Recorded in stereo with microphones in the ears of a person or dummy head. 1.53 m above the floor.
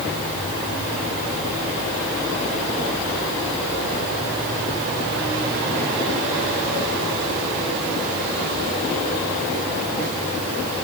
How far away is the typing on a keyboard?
No typing on a keyboard in this recording.